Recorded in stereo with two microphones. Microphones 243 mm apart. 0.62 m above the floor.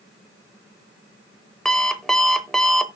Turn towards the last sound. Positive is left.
turn(degrees=0)  # may be behind; listen again after turning